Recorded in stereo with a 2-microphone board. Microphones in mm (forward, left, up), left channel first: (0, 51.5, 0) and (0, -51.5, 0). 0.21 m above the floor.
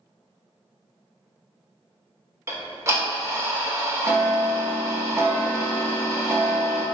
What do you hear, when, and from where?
2.5 s ticking: 30° right (ahead or behind), 0.6 m